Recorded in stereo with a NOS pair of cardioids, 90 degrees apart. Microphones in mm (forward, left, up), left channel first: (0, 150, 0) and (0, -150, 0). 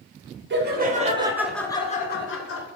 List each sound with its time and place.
0.5 s laughter: 40° right, 1.0 m; by 2.7 s 55° left, 0.9 m